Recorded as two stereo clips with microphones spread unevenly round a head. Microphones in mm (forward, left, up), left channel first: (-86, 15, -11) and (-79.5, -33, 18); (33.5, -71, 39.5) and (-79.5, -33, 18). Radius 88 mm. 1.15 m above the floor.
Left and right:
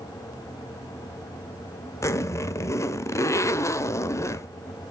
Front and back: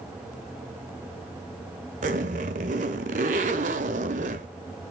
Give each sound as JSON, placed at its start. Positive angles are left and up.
{"t": 2.0, "sound": "a zipper", "azimuth_deg": 140, "distance_m": 1.1}